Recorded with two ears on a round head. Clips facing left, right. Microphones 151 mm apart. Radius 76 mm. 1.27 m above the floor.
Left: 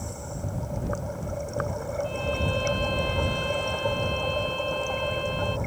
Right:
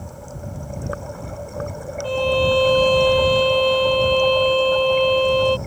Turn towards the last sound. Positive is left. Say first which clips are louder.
# right 16 dB
turn(degrees=-90)